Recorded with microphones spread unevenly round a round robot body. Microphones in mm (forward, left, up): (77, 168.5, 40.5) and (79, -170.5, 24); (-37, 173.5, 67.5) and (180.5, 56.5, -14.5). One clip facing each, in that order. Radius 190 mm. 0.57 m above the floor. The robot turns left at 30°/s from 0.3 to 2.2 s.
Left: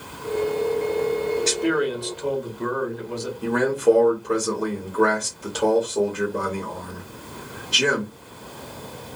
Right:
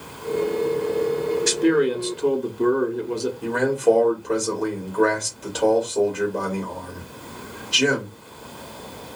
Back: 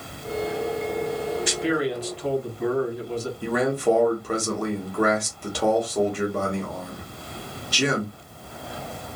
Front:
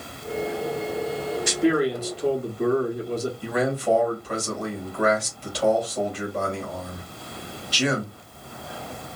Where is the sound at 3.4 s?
175° left, 1.3 m.